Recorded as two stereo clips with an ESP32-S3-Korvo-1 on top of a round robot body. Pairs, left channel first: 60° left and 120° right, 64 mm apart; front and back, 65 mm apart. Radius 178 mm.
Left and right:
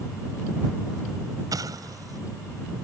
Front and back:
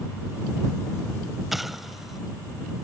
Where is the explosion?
95° right.